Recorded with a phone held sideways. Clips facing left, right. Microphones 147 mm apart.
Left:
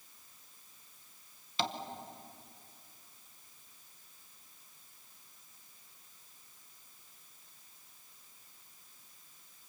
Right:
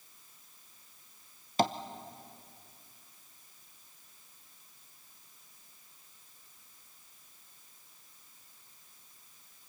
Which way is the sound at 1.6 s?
45° right (ahead or behind).